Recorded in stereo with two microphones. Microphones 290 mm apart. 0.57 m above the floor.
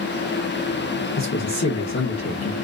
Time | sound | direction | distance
1.2 | a man speaking | 60° left (ahead or behind) | 1.2 m